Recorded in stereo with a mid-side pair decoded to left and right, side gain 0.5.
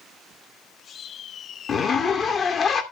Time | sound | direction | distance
1.7 | a zipper | 45° left | 2.5 m